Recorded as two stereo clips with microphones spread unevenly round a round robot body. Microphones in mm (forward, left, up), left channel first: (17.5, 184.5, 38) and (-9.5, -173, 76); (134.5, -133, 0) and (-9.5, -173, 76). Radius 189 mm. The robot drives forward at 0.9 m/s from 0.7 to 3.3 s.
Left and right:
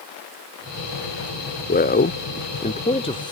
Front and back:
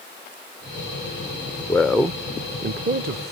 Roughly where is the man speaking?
Ahead left.